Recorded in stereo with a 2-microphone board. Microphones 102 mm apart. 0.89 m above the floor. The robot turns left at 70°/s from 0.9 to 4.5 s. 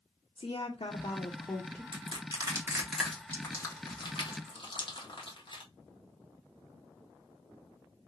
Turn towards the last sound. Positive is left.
turn(degrees=55)  # may be behind; listen again after turning